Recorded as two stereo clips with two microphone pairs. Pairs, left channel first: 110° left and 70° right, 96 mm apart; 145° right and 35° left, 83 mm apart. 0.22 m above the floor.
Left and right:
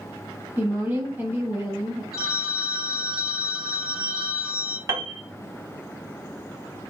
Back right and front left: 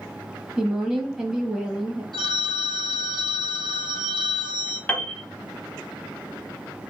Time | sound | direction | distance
0.6 | a woman speaking | 40° right | 1.2 m
2.1 | a phone ringing | 20° left | 2.5 m
4.9 | a piano | 90° right | 1.0 m